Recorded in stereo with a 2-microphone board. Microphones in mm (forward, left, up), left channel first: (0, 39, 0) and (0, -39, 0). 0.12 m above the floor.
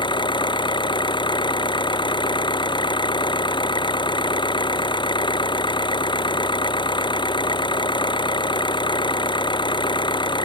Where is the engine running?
85° left.